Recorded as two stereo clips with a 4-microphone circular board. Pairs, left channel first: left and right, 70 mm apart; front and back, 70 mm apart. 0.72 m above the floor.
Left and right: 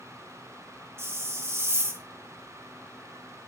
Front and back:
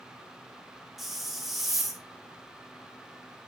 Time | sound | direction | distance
1.0 | a hiss | 95° right | 1.3 m